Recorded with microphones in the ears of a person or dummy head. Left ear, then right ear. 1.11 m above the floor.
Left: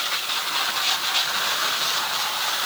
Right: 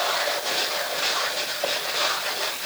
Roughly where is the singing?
No singing in this recording.